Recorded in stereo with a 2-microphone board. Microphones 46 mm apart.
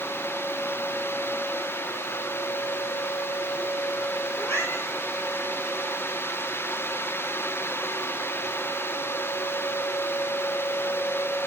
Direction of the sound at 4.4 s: 60° left (ahead or behind).